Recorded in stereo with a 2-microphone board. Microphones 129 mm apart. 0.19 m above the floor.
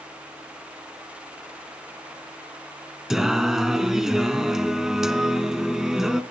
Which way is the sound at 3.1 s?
5° right (ahead or behind).